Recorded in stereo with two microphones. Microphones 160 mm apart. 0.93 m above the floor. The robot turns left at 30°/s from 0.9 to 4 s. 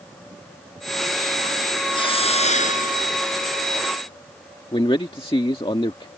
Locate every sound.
1.9 s a hiss: 150° left; by 3.6 s 100° left
4.7 s a man speaking: 35° left (ahead or behind)